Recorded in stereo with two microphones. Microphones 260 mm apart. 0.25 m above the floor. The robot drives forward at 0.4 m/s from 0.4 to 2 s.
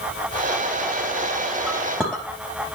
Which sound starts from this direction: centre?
A clink, at 1.7 s.